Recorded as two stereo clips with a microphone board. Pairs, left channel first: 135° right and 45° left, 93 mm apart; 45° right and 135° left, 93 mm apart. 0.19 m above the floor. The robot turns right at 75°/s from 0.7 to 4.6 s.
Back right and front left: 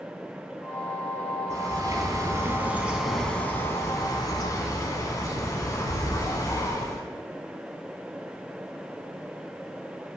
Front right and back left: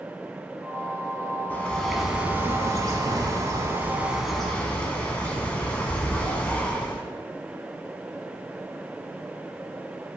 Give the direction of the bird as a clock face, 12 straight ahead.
12 o'clock.